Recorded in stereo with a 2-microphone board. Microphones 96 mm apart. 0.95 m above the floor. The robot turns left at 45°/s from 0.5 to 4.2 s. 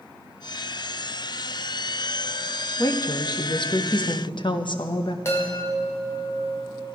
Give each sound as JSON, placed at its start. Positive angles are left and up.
{"t": 2.8, "sound": "a woman speaking", "azimuth_deg": 140, "distance_m": 0.9}
{"t": 5.2, "sound": "a chime", "side_deg": 25, "distance_m": 3.0}